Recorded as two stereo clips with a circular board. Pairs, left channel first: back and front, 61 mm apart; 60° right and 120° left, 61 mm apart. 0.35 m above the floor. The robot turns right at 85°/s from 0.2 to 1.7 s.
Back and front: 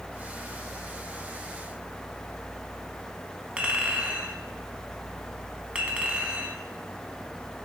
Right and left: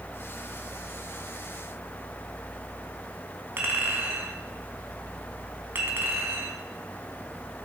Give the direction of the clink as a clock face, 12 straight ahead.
10 o'clock.